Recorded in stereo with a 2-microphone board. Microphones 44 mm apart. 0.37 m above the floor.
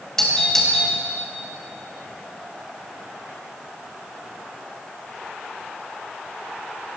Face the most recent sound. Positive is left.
turn(degrees=10)  # may be behind; listen again after turning